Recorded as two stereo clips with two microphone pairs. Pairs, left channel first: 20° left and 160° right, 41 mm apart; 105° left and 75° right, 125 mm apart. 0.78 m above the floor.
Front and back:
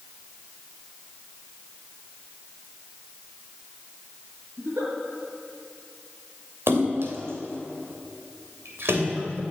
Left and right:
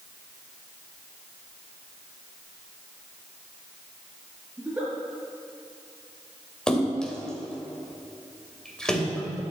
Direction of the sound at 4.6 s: 150° right.